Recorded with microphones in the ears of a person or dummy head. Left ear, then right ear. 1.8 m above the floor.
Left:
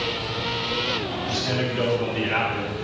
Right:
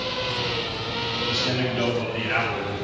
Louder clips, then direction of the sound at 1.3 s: Left 1 dB; 5° right (ahead or behind).